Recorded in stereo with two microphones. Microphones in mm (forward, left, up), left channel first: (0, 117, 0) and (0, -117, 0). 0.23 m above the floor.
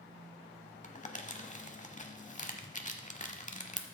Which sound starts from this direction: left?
Crumpling, at 0.8 s.